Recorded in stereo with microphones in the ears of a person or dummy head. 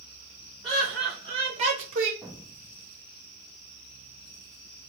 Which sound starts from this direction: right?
Laughter, at 0.6 s.